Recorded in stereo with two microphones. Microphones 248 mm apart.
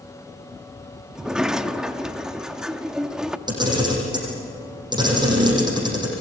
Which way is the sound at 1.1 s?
5° right (ahead or behind).